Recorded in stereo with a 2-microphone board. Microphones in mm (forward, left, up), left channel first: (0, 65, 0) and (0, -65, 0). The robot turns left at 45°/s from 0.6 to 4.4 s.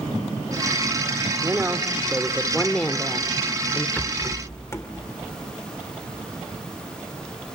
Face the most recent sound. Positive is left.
turn(degrees=20)  # may be behind; listen again after turning